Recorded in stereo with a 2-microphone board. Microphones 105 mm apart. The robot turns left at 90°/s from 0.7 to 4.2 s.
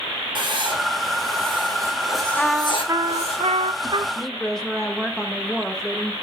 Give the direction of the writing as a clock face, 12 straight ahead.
2 o'clock.